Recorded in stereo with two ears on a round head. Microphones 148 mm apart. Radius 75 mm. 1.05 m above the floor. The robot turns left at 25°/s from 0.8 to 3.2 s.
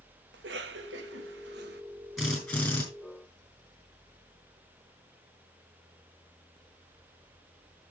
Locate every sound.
0.3 s a cough: 70° right (ahead or behind), 1.3 m
2.2 s a drill: 5° right (ahead or behind), 5.5 m; by 2.8 s 15° left (ahead or behind), 5.5 m